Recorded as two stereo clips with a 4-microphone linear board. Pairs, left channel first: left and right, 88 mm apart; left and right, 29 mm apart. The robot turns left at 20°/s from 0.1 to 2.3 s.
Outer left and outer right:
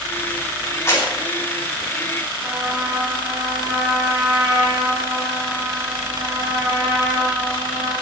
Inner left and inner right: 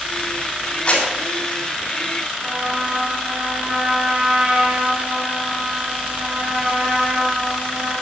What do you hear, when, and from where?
0.9 s a clap: 35° left (ahead or behind), 8.5 m; by 1.1 s 30° left (ahead or behind), 8.5 m
2.4 s a trumpet: 25° right (ahead or behind), 5.5 m